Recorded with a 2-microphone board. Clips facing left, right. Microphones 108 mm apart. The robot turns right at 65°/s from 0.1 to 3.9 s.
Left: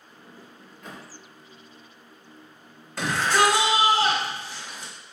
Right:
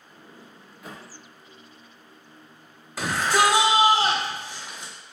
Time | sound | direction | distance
0.1 | a sliding door | 25° right (ahead or behind) | 0.9 m
3.0 | a shout | 5° right (ahead or behind) | 0.9 m